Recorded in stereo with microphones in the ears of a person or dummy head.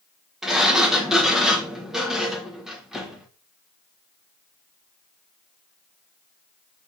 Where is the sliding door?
Centre (ahead or behind), 1.4 m.